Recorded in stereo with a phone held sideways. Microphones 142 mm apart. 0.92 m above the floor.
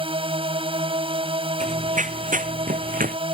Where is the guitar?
I don't hear a guitar.